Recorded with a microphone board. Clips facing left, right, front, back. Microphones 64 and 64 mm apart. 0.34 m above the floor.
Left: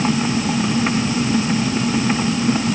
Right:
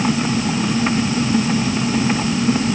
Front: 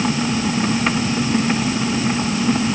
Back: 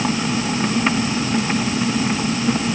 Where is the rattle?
No rattle in this recording.